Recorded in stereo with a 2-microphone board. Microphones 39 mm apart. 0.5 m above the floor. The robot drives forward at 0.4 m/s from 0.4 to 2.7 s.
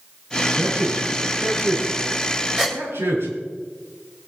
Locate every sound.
0.5 s a man speaking: 65° right (ahead or behind), 6.5 m; by 3.3 s 70° right (ahead or behind), 6 m
2.6 s a gasp: 10° right (ahead or behind), 2 m